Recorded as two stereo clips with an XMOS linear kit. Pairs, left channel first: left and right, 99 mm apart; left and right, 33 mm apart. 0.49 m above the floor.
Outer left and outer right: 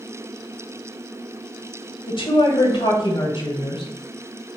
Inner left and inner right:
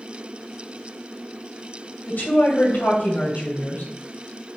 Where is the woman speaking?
55° left (ahead or behind), 1.9 m.